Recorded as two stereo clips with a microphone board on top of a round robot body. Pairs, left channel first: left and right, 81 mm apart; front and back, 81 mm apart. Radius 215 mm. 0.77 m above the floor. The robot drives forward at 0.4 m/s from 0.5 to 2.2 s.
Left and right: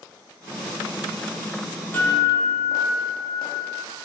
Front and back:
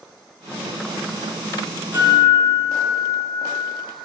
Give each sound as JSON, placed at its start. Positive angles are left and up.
{"t": 1.9, "sound": "a guitar", "azimuth_deg": 140, "distance_m": 0.9}